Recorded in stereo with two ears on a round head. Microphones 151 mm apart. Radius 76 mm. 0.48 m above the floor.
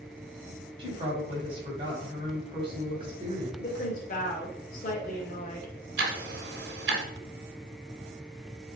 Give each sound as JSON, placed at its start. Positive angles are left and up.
{"t": 0.8, "sound": "a woman speaking", "side_deg": -35, "distance_m": 3.0}
{"t": 3.6, "sound": "a woman speaking", "side_deg": 45, "distance_m": 1.7}
{"t": 6.0, "sound": "ticking", "side_deg": -65, "distance_m": 1.6}